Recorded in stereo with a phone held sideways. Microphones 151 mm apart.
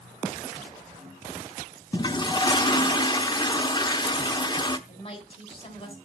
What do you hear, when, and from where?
1.9 s a toilet flushing: 30° left (ahead or behind), 0.8 m
4.9 s a woman speaking: 40° left (ahead or behind), 4 m